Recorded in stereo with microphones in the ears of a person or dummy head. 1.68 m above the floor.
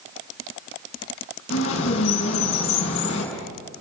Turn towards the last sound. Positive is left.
turn(degrees=80)